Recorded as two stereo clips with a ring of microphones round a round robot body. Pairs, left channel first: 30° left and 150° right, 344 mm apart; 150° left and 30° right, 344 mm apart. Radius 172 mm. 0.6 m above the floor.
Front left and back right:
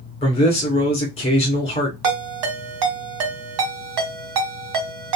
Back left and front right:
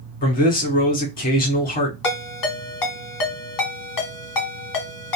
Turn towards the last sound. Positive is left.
turn(degrees=-175)